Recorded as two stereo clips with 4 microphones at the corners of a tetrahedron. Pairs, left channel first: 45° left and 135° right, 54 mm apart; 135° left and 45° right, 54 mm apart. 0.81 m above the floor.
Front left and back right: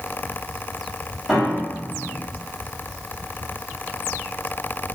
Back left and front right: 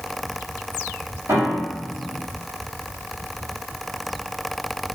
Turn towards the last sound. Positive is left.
turn(degrees=-50)